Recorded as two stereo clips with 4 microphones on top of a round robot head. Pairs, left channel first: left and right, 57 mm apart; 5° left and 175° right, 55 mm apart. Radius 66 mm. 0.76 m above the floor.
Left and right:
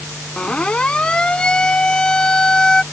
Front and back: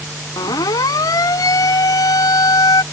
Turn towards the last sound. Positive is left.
turn(degrees=10)